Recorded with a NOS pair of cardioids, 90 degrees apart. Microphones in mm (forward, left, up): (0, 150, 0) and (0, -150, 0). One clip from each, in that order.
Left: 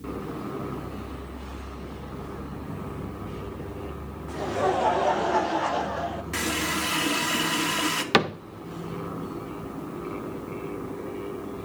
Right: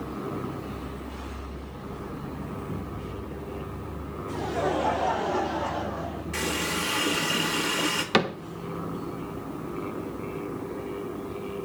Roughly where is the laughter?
Ahead.